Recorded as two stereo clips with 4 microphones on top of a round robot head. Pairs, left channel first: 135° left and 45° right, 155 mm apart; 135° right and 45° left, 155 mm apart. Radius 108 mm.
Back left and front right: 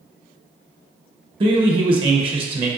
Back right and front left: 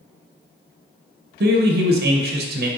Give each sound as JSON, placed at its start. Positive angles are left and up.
{"t": 1.4, "sound": "a man speaking", "azimuth_deg": 15, "distance_m": 0.6}